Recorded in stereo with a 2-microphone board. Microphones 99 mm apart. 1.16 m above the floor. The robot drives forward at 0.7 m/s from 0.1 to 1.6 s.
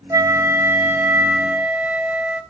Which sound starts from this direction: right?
A flute, at 0.1 s.